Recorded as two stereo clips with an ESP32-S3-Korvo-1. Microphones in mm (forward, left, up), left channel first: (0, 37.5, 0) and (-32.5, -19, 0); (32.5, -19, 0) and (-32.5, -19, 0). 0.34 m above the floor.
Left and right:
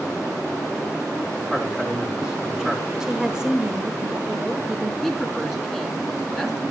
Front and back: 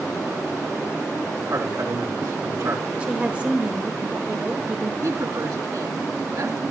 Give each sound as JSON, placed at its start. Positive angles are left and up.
{"t": 1.5, "sound": "a man speaking", "azimuth_deg": 160, "distance_m": 4.5}
{"t": 3.0, "sound": "a woman speaking", "azimuth_deg": -175, "distance_m": 1.3}
{"t": 5.0, "sound": "a woman speaking", "azimuth_deg": 150, "distance_m": 3.5}